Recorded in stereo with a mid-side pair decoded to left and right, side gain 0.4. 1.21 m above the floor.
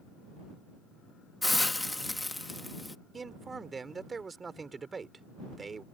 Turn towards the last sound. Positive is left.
turn(degrees=-35)